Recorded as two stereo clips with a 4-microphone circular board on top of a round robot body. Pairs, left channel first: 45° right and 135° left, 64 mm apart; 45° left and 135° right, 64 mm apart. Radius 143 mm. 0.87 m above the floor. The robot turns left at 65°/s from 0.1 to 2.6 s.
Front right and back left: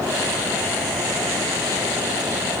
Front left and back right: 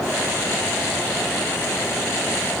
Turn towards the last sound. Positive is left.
No sound to turn to.